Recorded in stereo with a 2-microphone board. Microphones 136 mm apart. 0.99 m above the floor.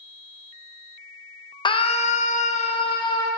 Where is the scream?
35° left (ahead or behind), 0.6 m; by 3.3 s 30° left (ahead or behind), 0.9 m.